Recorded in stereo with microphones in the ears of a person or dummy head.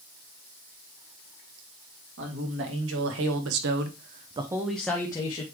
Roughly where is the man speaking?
Right.